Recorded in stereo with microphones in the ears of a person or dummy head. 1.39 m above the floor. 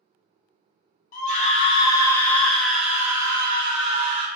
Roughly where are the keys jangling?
No keys jangling in this recording.